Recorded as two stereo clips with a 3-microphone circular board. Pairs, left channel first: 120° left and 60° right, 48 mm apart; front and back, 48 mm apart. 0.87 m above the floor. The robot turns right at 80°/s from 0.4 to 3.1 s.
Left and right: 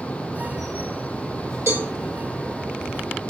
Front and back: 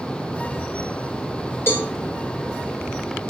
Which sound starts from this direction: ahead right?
A cowbell, at 1.7 s.